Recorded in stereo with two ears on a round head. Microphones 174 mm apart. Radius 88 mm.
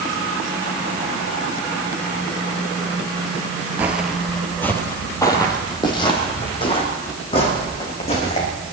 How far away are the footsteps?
About 1.4 m.